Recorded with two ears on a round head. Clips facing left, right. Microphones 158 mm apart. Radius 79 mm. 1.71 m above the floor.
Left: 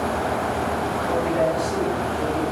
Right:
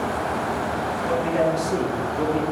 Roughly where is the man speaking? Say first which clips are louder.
Even; right.